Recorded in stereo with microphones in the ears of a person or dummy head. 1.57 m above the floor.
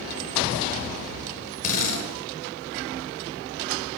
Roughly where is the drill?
Left.